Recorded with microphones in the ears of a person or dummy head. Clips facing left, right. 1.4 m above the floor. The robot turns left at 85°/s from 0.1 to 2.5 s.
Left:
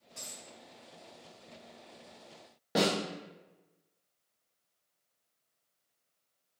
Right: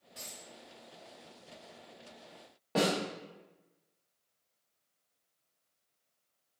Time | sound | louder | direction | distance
0.1 | a dropped coin | even | 25° right (ahead or behind) | 1.7 m
2.8 | a snare drum | left 1 dB | 15° left (ahead or behind) | 0.7 m